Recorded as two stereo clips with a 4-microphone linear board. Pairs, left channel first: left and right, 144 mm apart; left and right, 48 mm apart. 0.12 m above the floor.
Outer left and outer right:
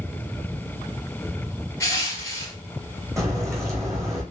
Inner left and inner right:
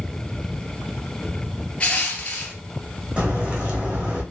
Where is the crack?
20° right (ahead or behind), 1.2 m.